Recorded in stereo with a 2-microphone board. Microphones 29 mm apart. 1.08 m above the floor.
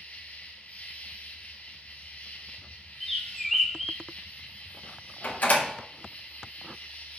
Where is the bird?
Centre (ahead or behind), 1.2 m.